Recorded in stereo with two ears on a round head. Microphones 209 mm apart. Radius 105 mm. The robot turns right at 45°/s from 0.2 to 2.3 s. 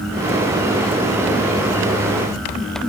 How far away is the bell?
I don't hear a bell.